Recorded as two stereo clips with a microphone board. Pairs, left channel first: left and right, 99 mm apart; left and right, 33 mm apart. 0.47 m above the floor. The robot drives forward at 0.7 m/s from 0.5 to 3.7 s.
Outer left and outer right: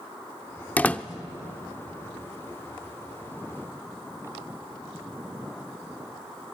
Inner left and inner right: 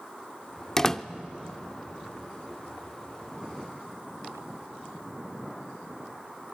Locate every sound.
0.8 s a door slam: 15° left (ahead or behind), 0.6 m